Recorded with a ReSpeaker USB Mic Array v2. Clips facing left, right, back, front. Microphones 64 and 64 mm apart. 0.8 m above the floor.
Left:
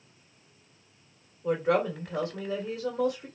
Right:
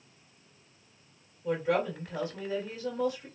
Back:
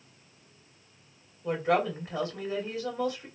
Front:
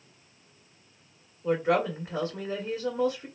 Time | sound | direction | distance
1.4 | a woman speaking | 70° left | 2 m